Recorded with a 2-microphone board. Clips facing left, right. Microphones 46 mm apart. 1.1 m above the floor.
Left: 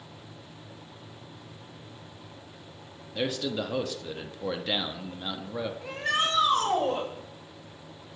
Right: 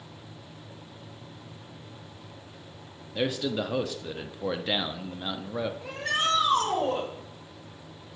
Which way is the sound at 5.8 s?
Centre (ahead or behind).